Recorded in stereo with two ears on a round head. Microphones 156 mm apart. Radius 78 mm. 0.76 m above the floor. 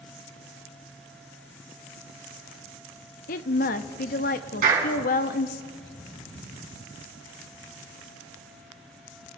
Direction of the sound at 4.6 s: 50° right (ahead or behind).